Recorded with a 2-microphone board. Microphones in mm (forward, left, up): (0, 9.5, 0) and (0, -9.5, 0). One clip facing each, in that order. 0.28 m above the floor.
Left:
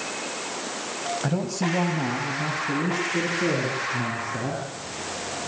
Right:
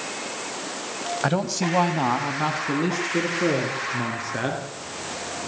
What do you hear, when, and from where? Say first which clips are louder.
1.2 s a man speaking: right 4 dB; 40° right (ahead or behind), 1.8 m; by 4.6 s 65° right (ahead or behind), 5 m